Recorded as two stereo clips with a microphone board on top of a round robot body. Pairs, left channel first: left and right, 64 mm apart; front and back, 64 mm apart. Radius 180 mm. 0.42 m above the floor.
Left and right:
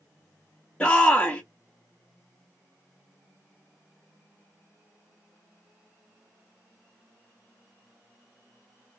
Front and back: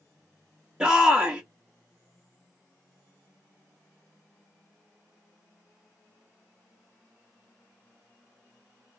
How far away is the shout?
About 1.1 m.